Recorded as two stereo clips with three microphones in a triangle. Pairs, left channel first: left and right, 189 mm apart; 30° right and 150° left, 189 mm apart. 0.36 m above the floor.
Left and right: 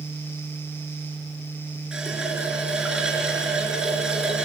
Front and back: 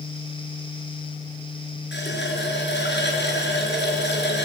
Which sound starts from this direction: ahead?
A running tap, at 1.9 s.